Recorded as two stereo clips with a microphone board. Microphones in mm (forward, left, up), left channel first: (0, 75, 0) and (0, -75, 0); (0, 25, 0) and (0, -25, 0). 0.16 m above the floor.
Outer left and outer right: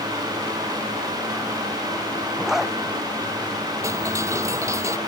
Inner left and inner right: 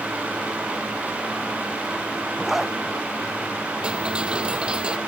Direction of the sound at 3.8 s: 20° right (ahead or behind).